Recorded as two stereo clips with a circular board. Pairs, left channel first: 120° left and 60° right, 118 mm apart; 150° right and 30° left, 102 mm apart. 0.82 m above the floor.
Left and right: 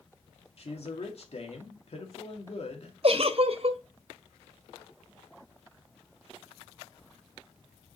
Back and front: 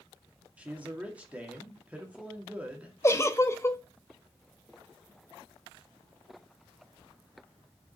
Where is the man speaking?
105° left, 2 m.